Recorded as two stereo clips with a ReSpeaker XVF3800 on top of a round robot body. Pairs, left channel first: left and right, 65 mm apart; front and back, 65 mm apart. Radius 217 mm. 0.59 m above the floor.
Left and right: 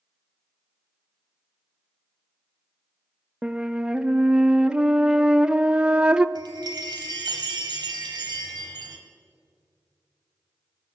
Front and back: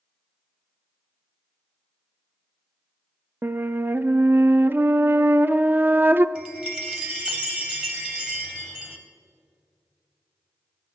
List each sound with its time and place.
3.4 s a flute: 155° right, 0.6 m
6.3 s a chime: 105° right, 0.6 m